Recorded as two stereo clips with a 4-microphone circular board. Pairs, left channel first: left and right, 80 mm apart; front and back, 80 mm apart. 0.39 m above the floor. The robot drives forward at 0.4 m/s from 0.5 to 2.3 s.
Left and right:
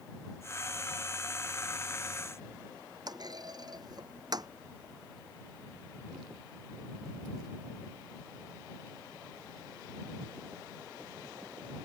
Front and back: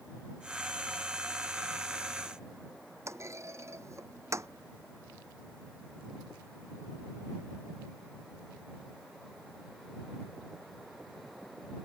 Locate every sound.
3.1 s a clunk: 125° right